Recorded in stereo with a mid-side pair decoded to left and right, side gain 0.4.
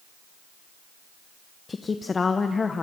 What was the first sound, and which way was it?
A woman speaking, 35° left.